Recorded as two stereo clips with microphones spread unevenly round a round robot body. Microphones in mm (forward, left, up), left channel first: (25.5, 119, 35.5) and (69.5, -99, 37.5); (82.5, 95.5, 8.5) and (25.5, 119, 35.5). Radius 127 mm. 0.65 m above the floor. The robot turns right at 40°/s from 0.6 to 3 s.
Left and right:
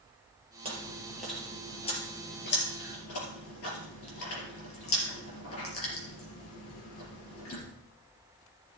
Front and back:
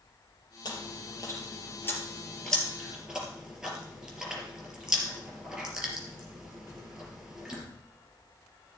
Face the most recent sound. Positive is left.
turn(degrees=80)